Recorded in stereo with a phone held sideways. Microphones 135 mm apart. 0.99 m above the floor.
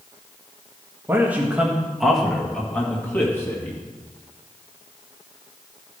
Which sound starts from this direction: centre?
A man speaking, at 1.1 s.